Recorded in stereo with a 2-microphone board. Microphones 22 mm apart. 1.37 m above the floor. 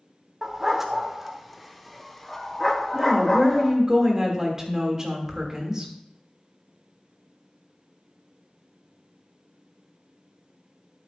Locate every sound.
0.4 s a dog barking: 15° right (ahead or behind), 1.2 m; by 3.7 s 20° left (ahead or behind), 1.7 m
2.9 s a woman speaking: 25° right (ahead or behind), 2.5 m